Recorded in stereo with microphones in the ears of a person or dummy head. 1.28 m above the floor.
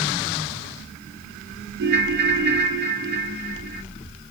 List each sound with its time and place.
1.8 s a ringtone: 55° right (ahead or behind), 1.2 m